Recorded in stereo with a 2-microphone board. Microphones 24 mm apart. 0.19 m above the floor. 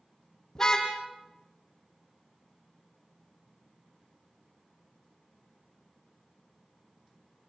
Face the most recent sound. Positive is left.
turn(degrees=25)  # may be behind; listen again after turning